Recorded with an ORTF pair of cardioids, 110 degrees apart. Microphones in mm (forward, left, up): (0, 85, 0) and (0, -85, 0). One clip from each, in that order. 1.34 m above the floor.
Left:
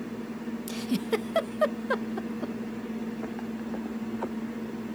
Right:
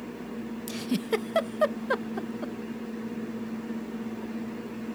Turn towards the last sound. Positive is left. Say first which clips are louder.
# even
turn(degrees=-5)